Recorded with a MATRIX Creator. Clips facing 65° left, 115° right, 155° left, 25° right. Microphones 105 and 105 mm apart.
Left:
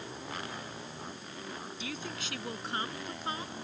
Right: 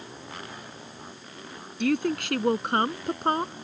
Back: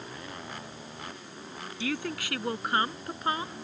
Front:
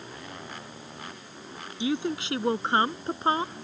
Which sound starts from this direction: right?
A woman speaking, at 1.8 s.